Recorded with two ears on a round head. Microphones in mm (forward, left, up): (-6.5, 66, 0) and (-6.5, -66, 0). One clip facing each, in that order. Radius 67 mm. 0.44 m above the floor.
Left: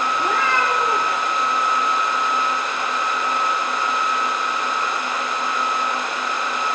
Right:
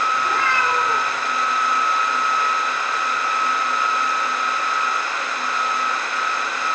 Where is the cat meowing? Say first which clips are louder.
Left 1 dB; 65° left (ahead or behind), 8.5 m.